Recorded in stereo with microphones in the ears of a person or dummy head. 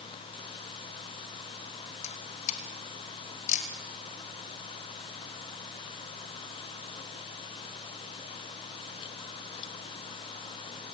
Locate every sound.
2.0 s a camera shutter: 40° left (ahead or behind), 3 m